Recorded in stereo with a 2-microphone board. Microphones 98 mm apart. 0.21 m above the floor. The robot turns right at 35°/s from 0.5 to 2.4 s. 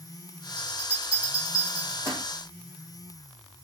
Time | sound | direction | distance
0.6 | a bell | 80° right | 6.5 m